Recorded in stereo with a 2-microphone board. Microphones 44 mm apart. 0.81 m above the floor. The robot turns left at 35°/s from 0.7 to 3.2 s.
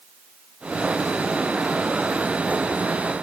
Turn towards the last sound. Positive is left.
No sound to turn to.